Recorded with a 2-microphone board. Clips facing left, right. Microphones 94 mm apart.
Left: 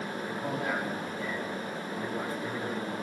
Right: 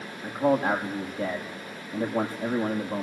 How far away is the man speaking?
About 6.5 m.